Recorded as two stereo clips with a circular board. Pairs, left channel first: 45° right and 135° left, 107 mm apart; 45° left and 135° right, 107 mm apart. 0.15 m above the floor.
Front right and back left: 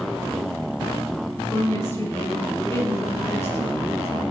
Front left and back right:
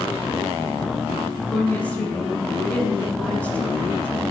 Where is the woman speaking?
15° right, 1.5 m.